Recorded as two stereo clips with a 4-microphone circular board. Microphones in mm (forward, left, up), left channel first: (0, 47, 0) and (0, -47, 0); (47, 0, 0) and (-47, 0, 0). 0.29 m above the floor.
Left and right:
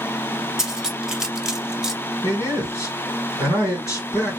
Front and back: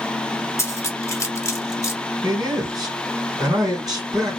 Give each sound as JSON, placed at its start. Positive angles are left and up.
{"t": 0.6, "sound": "cutlery clinking", "azimuth_deg": -10, "distance_m": 0.6}
{"t": 2.2, "sound": "a man speaking", "azimuth_deg": 140, "distance_m": 1.9}